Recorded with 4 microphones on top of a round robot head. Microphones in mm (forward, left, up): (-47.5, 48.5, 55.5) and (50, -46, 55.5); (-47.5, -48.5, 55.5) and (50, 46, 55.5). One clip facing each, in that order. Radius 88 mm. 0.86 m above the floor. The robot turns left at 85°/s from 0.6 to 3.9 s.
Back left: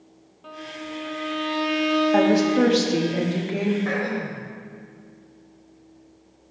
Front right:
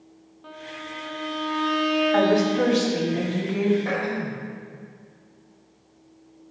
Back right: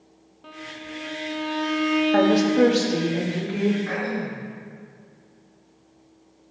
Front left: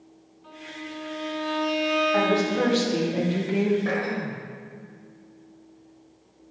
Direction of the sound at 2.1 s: 160° right.